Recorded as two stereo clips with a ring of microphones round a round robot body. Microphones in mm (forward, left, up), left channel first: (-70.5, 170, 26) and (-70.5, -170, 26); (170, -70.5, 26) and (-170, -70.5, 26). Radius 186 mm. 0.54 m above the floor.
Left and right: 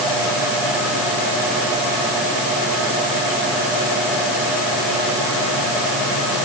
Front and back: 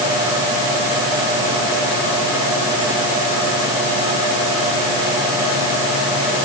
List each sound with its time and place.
Only background noise.